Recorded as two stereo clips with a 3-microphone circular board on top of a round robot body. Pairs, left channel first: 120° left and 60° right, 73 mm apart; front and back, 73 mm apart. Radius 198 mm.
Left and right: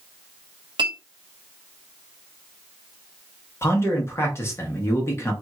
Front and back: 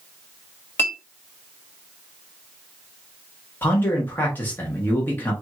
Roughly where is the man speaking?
Ahead left.